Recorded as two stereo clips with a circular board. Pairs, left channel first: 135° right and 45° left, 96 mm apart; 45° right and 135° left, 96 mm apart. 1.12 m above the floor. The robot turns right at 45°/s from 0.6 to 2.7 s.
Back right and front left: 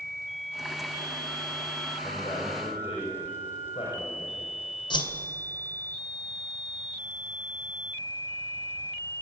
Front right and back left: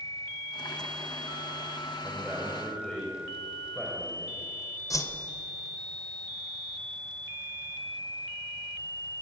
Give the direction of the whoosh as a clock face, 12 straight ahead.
3 o'clock.